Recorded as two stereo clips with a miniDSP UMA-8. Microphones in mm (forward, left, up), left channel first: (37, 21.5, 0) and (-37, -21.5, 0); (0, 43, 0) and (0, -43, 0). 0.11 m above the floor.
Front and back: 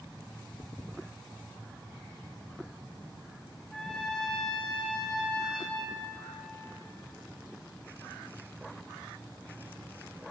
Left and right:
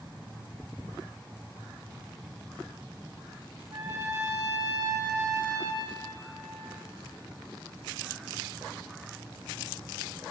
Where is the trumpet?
60° right, 6.5 m.